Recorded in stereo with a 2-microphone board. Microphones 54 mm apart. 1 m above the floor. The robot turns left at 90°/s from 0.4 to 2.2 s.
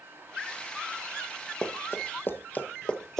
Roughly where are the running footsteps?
Centre.